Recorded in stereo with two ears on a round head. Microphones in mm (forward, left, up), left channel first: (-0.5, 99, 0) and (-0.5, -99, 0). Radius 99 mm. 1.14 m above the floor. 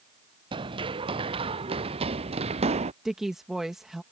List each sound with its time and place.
0.5 s running footsteps: 20° right (ahead or behind); by 2.9 s 30° right (ahead or behind)
3.0 s a woman speaking: centre (ahead or behind)